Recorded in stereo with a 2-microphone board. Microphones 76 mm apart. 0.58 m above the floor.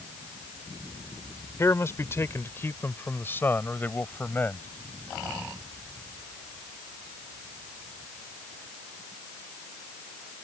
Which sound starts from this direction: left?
A man speaking, at 1.6 s.